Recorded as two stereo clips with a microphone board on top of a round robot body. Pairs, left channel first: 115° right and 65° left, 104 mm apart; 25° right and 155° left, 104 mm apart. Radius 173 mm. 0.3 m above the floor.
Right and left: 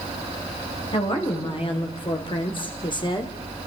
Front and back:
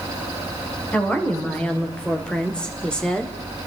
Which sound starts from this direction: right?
A woman speaking, at 0.9 s.